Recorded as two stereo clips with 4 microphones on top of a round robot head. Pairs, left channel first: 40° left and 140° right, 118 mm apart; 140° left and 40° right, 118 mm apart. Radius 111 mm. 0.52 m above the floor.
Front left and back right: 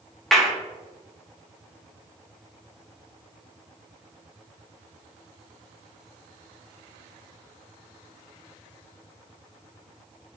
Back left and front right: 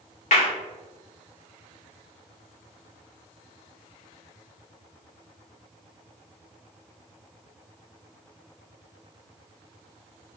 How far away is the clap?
About 1.7 m.